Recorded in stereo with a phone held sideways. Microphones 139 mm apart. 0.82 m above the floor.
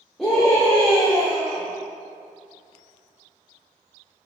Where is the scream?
Centre (ahead or behind), 1.8 m.